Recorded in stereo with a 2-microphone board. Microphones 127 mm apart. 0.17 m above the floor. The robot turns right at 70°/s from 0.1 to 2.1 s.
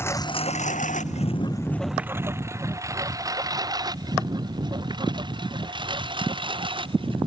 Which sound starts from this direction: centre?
A lawn mower, at 0.0 s.